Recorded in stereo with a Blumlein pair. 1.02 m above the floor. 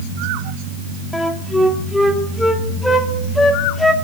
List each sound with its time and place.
1.1 s a flute: 5° left, 1.8 m